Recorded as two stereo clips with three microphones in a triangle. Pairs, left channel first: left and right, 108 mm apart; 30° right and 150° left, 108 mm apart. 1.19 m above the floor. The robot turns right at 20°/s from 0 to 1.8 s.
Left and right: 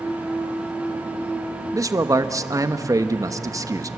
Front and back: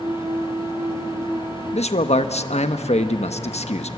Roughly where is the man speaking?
Ahead right.